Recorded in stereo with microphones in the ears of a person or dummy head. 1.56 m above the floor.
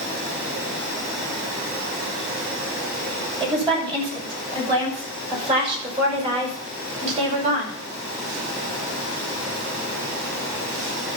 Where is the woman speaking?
35° right (ahead or behind), 8.5 m; by 7.8 s 40° right (ahead or behind), 5 m.